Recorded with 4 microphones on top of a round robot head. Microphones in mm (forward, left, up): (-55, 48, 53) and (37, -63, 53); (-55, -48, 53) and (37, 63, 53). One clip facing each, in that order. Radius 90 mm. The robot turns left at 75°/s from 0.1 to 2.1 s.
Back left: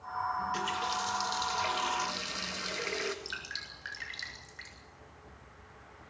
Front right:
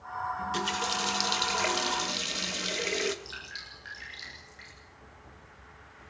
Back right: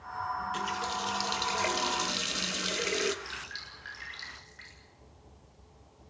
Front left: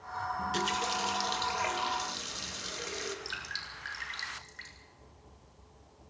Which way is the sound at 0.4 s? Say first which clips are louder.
Front right 2 dB, front left 2 dB; 20° left.